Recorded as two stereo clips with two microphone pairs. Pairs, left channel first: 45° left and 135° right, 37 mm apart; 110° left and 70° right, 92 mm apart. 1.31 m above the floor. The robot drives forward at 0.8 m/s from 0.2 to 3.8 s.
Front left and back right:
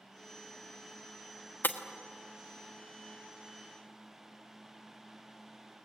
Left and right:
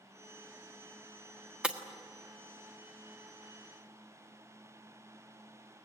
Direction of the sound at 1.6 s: 5° left.